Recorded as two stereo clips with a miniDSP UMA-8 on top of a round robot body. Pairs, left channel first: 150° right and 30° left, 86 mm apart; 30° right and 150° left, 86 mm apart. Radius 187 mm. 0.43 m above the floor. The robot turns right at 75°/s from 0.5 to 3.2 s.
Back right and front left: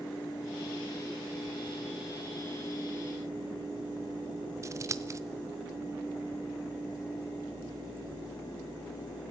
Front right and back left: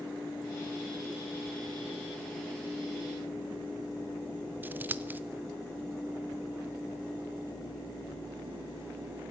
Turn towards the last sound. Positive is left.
turn(degrees=85)